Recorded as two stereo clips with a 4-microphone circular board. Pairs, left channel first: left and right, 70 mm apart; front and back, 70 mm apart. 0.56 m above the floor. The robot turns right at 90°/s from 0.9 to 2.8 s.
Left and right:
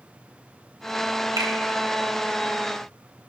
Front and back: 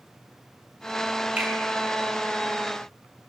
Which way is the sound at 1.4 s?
110° right.